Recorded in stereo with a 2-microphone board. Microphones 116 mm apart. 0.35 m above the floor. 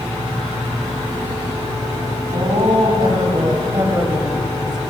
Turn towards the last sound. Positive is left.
turn(degrees=-5)  # may be behind; listen again after turning